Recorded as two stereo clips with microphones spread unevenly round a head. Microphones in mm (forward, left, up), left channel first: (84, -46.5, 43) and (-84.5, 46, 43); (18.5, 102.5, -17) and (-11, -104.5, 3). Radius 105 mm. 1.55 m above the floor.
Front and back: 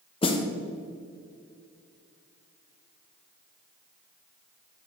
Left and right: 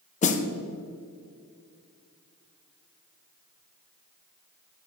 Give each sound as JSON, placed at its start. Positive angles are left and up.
{"t": 0.2, "sound": "a snare drum", "azimuth_deg": 30, "distance_m": 0.5}